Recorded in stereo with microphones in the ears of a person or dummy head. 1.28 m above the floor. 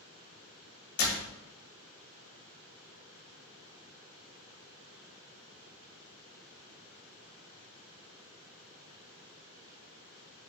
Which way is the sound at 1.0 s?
45° left (ahead or behind).